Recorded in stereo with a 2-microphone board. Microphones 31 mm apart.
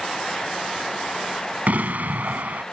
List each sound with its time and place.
1.7 s an explosion: 60° right (ahead or behind)